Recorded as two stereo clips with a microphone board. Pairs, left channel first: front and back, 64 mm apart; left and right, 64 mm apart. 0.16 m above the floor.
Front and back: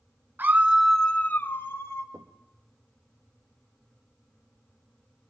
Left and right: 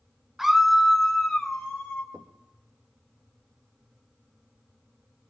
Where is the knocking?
150° right, 2.5 m.